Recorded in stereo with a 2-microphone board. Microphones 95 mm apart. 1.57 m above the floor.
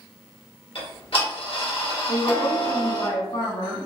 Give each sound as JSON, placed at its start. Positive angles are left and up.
{"t": 0.8, "sound": "ticking", "side_deg": 70, "distance_m": 1.4}
{"t": 2.1, "sound": "a woman speaking", "side_deg": 70, "distance_m": 1.8}